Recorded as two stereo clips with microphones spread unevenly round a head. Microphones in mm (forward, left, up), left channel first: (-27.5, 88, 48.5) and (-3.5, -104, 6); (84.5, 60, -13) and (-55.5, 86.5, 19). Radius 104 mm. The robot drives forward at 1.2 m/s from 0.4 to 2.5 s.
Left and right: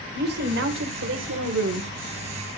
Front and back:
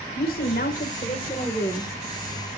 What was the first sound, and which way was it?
A woman speaking, 50° right.